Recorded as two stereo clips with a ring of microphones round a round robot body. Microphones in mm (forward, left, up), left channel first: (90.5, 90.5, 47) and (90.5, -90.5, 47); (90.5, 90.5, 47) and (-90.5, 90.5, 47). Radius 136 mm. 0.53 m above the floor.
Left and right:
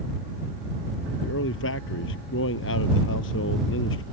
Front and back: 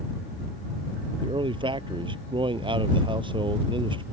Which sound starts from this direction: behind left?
A man speaking, at 1.2 s.